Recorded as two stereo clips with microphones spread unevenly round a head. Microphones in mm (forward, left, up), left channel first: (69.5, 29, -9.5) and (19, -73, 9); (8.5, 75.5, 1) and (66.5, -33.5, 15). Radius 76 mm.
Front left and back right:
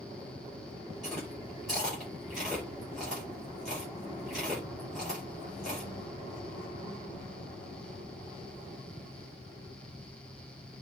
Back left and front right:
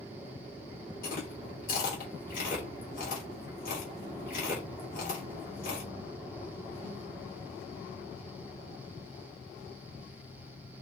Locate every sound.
1.0 s chewing: 155° left, 2.5 m